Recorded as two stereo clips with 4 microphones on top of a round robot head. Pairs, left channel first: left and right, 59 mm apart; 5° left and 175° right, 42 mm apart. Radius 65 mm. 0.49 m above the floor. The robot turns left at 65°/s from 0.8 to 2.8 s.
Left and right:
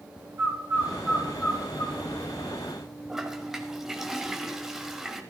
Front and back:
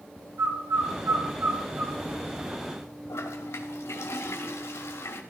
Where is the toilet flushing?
10° right, 1.4 m.